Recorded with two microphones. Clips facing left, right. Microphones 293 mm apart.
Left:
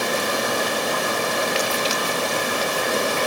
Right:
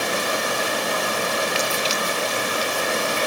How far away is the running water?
About 1.8 m.